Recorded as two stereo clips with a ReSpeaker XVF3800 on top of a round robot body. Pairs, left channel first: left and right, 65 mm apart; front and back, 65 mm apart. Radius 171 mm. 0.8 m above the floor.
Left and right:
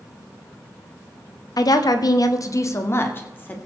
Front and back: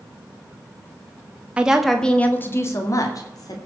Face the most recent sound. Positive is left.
turn(degrees=25)